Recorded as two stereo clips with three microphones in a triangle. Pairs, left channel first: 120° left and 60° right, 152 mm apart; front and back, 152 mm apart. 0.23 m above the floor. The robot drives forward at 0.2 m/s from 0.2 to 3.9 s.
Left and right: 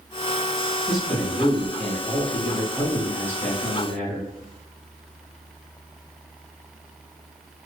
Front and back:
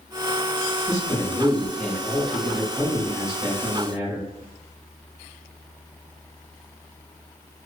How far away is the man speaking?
About 1.0 m.